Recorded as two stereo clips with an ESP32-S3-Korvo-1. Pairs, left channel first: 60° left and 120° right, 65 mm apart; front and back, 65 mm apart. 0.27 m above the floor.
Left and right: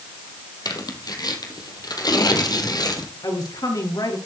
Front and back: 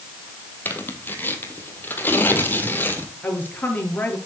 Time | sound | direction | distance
0.7 | tearing paper | 60° left | 2.5 m
3.2 | a woman speaking | 60° left | 4.5 m